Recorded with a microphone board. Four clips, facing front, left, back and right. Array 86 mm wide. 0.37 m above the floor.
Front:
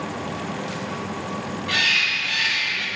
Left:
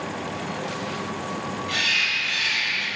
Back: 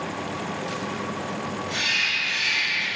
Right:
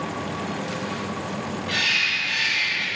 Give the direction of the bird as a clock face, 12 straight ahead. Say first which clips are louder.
Right 1 dB, front 3 dB; 12 o'clock.